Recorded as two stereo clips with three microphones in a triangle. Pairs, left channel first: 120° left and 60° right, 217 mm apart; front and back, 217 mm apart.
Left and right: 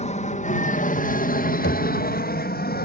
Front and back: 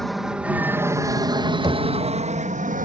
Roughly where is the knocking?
Left.